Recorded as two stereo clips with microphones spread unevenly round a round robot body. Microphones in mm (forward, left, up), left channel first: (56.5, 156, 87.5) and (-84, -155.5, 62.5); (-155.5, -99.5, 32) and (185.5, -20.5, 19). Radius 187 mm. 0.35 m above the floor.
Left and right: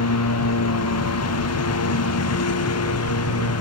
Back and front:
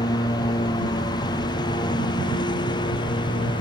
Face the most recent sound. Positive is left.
turn(degrees=115)